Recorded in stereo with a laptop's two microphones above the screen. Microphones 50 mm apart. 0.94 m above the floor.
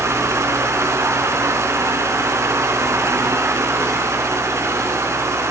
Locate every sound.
0.0 s a fan: 70° right (ahead or behind), 3.5 m